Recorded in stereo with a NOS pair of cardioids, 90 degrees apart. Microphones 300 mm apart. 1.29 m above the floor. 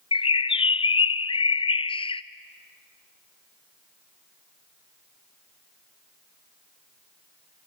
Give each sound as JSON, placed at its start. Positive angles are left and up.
{"t": 0.1, "sound": "a bird", "azimuth_deg": 20, "distance_m": 0.6}